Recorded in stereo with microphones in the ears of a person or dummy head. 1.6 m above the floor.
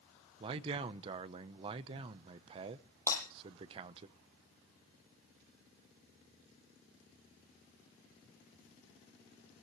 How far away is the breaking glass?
About 7.5 m.